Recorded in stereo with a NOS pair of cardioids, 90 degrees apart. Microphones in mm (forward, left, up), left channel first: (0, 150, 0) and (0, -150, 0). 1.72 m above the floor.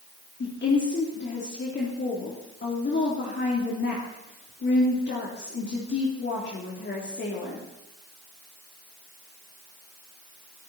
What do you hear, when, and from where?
0.4 s a woman speaking: 35° left, 3.5 m